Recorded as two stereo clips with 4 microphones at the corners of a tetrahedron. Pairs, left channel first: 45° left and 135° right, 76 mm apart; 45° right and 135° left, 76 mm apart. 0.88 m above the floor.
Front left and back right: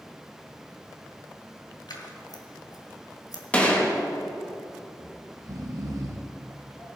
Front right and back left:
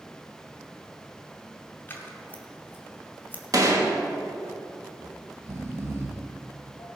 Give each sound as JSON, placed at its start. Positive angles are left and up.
{"t": 1.9, "sound": "scissors", "azimuth_deg": 20, "distance_m": 2.0}
{"t": 3.5, "sound": "a gunshot", "azimuth_deg": 115, "distance_m": 1.5}
{"t": 5.0, "sound": "snoring", "azimuth_deg": -170, "distance_m": 1.7}